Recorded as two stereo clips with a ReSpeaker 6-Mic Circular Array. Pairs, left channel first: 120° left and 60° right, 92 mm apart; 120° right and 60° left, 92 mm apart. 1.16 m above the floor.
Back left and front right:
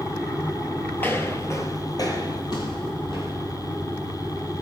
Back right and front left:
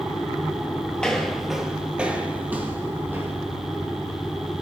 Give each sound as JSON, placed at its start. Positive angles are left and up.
{"t": 1.0, "sound": "footsteps", "azimuth_deg": 170, "distance_m": 1.3}